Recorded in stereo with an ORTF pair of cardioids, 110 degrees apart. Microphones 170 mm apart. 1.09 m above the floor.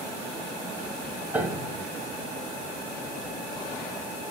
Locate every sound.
1.3 s a piano: 10° right, 1.2 m